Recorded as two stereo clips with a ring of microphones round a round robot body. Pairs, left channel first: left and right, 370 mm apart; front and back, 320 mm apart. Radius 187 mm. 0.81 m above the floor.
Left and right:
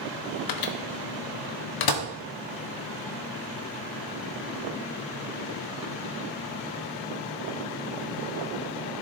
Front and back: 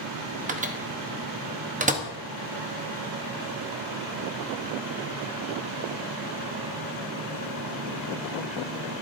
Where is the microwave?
115° left, 1.0 m.